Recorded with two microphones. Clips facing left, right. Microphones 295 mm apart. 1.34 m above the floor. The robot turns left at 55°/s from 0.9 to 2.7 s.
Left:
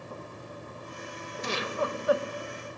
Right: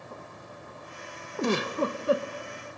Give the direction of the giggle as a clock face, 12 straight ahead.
4 o'clock.